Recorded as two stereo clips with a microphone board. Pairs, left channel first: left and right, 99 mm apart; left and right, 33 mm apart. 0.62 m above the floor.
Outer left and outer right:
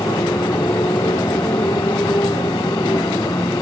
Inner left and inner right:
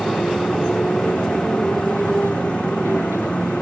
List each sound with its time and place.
0.0 s a motorcycle: 45° left (ahead or behind)